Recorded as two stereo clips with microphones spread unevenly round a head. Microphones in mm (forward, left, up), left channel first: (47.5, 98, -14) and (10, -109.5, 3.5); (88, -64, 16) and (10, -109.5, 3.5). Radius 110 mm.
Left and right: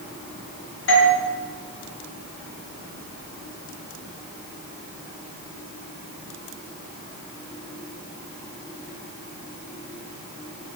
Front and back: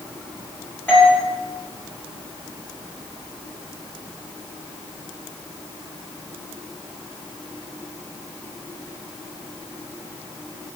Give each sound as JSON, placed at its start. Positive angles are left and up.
{"t": 0.9, "sound": "a doorbell", "azimuth_deg": 115, "distance_m": 3.0}